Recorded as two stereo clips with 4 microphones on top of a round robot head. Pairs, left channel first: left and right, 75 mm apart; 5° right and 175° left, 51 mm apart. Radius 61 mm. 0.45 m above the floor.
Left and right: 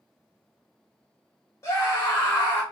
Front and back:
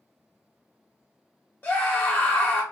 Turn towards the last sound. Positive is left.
turn(degrees=45)